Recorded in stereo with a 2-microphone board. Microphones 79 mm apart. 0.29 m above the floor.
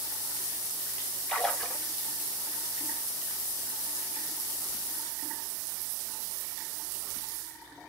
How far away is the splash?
About 2 m.